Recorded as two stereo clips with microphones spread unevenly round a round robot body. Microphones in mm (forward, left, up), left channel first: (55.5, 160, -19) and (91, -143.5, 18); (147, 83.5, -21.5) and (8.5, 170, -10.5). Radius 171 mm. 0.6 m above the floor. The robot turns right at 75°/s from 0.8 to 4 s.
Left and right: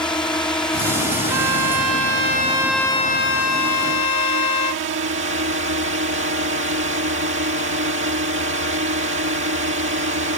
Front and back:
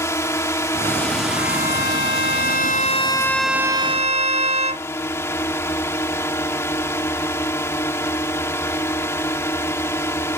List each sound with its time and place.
0.0 s a drone: 25° left; by 10.4 s 95° right
1.3 s a violin: 105° right; by 4.9 s 100° left